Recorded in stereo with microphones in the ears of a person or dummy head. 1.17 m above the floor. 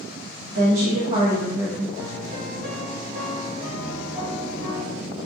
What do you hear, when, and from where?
0.5 s a woman speaking: 55° right (ahead or behind), 0.9 m; by 1.9 s centre (ahead or behind), 0.8 m
2.0 s a piano: 45° right (ahead or behind), 2.0 m